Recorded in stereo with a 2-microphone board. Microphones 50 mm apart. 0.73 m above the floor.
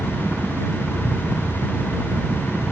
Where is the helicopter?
25° right (ahead or behind).